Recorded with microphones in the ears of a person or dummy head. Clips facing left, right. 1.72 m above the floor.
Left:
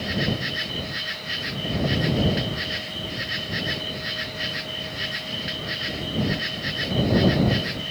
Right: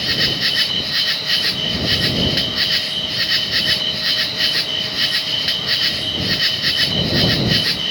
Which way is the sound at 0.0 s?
60° right (ahead or behind).